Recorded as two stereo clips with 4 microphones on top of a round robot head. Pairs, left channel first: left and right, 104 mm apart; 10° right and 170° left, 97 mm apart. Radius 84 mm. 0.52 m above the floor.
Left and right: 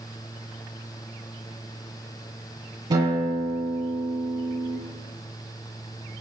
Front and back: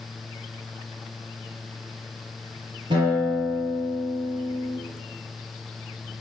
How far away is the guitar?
About 9.5 m.